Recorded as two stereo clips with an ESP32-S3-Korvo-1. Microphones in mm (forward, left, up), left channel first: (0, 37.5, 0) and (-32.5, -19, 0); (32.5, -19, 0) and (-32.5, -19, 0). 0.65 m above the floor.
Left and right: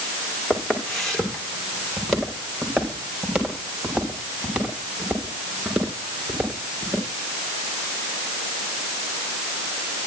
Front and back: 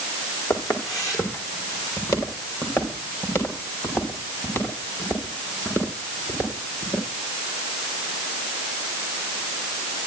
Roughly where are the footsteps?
Ahead right.